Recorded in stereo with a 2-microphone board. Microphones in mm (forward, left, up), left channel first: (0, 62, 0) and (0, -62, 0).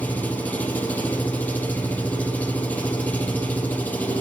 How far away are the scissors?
I don't hear scissors.